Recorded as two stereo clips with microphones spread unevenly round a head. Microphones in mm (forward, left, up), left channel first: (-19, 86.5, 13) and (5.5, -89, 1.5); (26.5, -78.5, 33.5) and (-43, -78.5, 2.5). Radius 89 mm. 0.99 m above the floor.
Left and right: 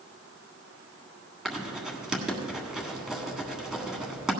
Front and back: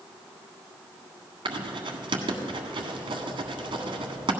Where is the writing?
170° right, 1.5 m.